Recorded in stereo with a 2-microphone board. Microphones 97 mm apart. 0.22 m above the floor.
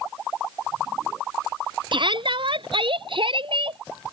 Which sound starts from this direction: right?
A shout, at 1.9 s.